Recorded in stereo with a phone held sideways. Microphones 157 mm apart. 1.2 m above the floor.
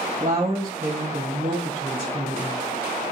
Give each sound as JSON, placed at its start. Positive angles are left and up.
{"t": 0.2, "sound": "a woman speaking", "side_deg": -45, "distance_m": 1.4}